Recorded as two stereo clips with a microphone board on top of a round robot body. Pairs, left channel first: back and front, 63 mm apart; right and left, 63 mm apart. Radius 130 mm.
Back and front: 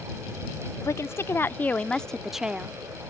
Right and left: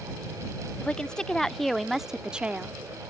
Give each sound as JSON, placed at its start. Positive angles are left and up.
{"t": 0.8, "sound": "a woman speaking", "azimuth_deg": -160}